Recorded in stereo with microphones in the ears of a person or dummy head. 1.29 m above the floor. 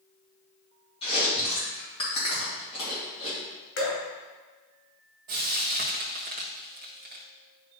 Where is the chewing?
25° left (ahead or behind), 3 m.